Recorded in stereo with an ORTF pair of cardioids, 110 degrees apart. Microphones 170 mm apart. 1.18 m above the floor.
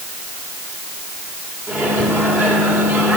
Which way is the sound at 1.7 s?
10° right.